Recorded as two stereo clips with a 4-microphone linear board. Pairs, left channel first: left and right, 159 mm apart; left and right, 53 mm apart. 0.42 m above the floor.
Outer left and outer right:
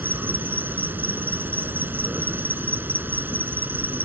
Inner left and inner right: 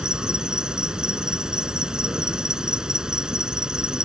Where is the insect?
10° right (ahead or behind).